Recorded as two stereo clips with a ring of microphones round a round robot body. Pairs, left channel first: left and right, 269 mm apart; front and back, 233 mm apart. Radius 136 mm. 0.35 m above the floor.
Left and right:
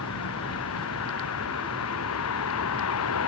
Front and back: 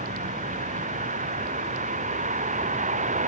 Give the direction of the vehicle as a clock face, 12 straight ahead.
8 o'clock.